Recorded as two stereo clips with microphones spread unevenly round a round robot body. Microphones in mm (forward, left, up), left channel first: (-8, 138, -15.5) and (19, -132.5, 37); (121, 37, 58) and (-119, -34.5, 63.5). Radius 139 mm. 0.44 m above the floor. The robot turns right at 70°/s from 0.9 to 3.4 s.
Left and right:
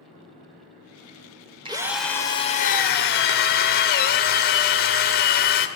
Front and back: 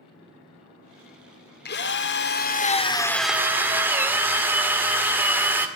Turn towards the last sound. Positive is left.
turn(degrees=115)